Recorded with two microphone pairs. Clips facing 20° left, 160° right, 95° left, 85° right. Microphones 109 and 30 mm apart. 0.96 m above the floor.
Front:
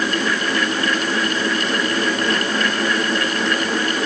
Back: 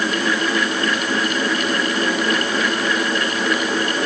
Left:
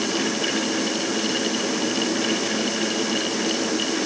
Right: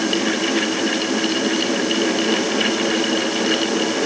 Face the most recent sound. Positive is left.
No sound to turn to.